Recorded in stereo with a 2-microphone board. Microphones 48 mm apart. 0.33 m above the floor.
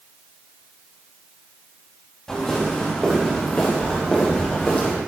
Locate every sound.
2.3 s footsteps: 20° left (ahead or behind), 9.5 m; by 5.0 s 30° left (ahead or behind), 9.5 m